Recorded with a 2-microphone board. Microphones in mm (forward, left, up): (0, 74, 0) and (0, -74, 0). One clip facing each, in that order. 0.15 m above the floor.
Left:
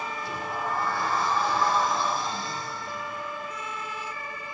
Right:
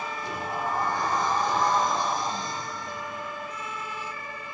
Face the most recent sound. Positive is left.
turn(degrees=-20)  # may be behind; listen again after turning